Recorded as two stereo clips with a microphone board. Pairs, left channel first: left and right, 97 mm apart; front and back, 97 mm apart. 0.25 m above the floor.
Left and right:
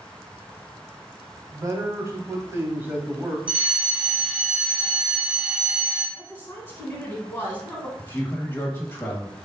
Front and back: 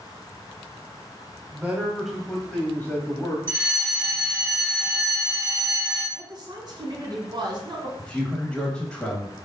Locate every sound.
1.5 s a man speaking: 115° right, 1.2 m; by 3.4 s 25° right, 1.1 m
3.5 s a fire alarm: 150° right, 2.0 m
6.2 s a woman speaking: 155° left, 1.6 m
8.0 s a man speaking: 65° left, 1.2 m